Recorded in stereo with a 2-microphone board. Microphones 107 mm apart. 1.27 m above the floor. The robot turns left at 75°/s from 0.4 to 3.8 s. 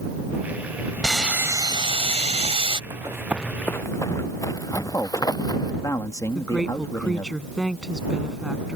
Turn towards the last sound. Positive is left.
turn(degrees=0)  # may be behind; listen again after turning